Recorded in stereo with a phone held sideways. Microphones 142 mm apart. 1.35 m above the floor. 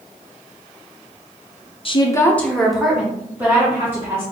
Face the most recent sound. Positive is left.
turn(degrees=-15)  # may be behind; listen again after turning